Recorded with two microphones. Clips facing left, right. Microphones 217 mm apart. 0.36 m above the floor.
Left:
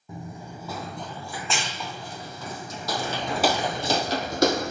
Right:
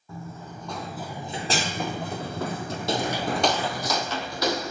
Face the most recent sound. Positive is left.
turn(degrees=55)  # may be behind; listen again after turning